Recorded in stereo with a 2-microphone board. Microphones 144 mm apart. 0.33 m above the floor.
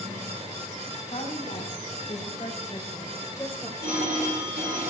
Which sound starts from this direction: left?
A woman speaking, at 1.1 s.